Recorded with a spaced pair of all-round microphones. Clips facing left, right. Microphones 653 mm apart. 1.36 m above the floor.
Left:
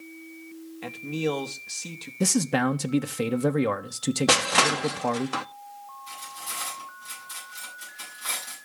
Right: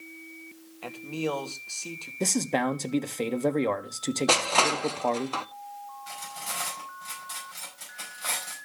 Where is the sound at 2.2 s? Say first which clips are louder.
Left 3 dB; 40° left (ahead or behind), 0.6 m.